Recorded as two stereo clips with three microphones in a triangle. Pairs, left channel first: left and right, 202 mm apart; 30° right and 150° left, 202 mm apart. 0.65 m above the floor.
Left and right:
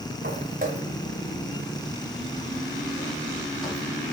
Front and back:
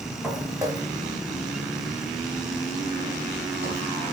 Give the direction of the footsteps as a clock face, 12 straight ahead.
4 o'clock.